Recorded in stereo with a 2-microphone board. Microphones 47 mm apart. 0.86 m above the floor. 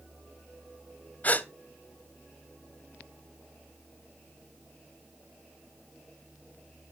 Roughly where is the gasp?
Left.